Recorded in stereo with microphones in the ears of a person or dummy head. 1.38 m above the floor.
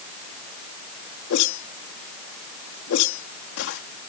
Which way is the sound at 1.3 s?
70° left (ahead or behind).